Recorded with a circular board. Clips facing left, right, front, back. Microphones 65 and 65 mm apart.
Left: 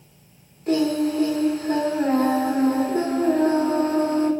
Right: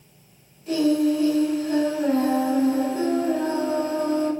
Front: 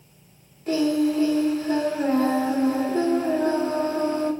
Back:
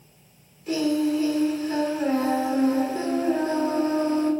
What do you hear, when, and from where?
0.7 s singing: 50° left, 3 m